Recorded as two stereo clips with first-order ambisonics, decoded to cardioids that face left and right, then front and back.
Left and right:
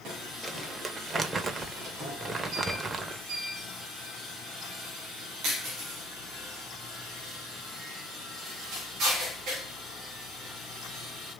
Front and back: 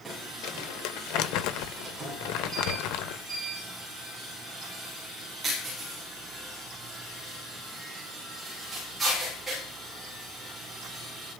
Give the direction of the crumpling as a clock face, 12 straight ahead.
1 o'clock.